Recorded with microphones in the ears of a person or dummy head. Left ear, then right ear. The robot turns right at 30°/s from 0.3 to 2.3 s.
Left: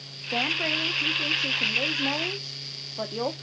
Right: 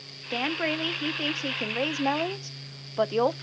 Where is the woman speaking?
165° right, 0.5 m; by 3.4 s 105° right, 0.5 m.